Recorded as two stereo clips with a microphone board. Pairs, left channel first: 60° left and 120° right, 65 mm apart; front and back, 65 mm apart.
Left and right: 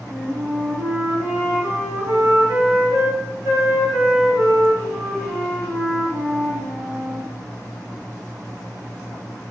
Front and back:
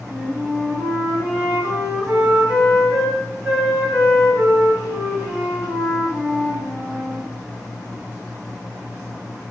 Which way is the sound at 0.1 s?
105° right.